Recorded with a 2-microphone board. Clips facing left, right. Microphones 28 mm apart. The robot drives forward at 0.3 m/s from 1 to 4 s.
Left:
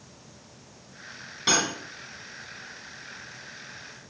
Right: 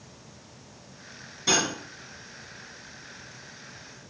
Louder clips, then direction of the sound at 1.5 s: Even; 45° left (ahead or behind).